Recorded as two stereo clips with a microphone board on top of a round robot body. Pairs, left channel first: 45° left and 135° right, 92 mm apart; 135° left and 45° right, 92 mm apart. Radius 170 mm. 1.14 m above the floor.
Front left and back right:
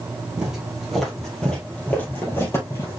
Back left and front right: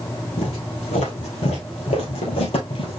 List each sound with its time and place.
0.4 s footsteps: 145° left, 2 m; by 3.0 s 100° left, 2 m